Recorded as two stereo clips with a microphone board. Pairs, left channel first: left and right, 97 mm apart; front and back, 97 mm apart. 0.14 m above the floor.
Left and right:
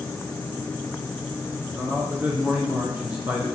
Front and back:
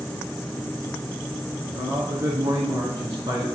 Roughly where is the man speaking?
Behind right.